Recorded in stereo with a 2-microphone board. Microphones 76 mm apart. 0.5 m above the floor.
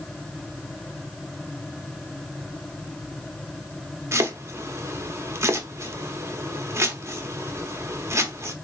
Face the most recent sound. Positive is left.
turn(degrees=-40)  # may be behind; listen again after turning